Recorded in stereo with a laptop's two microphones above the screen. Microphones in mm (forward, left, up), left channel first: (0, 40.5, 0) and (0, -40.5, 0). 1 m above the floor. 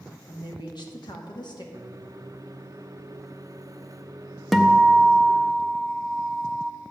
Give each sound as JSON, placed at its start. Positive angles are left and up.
{"t": 0.3, "sound": "a woman speaking", "side_deg": 60, "distance_m": 2.0}
{"t": 1.7, "sound": "a microwave", "side_deg": -40, "distance_m": 0.7}
{"t": 4.5, "sound": "a guitar", "side_deg": 0, "distance_m": 0.6}